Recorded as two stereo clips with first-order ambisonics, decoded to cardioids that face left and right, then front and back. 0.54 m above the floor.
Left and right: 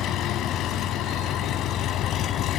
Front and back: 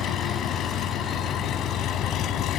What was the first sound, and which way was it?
An engine running, 45° left.